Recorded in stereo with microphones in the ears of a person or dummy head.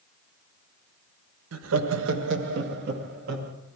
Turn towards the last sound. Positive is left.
turn(degrees=-55)  # may be behind; listen again after turning